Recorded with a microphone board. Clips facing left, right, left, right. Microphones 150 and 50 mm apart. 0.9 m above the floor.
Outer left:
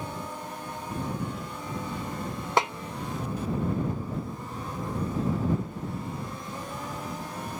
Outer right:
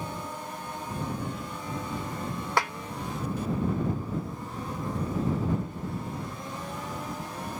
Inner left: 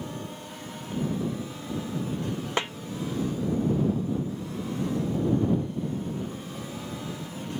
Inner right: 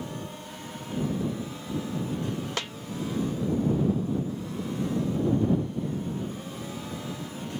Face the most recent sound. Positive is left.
turn(degrees=20)  # may be behind; listen again after turning